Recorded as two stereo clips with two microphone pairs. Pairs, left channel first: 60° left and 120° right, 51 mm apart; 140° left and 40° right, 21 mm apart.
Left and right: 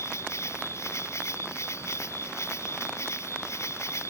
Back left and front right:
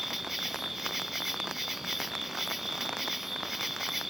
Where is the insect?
35° left.